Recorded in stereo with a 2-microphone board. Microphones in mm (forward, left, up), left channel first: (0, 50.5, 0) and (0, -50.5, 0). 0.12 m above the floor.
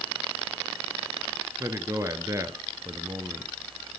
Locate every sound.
1.6 s a man speaking: 30° right (ahead or behind), 1.4 m